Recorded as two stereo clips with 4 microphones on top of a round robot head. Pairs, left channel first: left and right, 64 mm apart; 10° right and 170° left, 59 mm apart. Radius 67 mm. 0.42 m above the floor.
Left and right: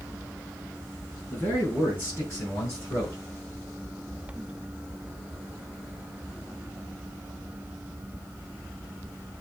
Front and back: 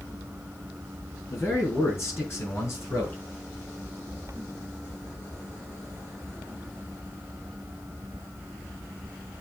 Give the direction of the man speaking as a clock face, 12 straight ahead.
11 o'clock.